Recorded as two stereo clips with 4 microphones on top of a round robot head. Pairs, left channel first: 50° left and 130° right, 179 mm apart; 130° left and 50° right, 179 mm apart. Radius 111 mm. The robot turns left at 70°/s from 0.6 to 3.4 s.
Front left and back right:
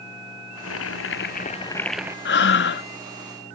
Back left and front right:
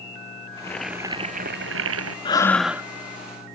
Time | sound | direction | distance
0.6 | boiling | 55° left | ?
2.2 | breathing | 65° left | ?